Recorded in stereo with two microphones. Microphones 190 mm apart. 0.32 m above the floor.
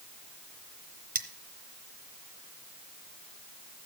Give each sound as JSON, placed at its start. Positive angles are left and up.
{"t": 1.1, "sound": "cutlery clinking", "side_deg": -45, "distance_m": 1.0}